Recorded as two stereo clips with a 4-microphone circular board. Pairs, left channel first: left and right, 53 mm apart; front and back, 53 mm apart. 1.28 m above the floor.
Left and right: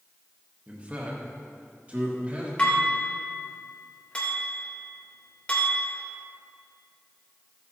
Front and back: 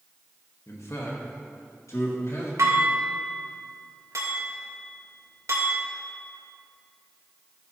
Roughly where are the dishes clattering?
Behind.